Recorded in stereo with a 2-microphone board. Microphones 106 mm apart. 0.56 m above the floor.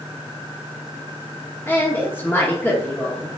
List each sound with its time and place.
1.7 s a woman speaking: 20° left (ahead or behind), 1.3 m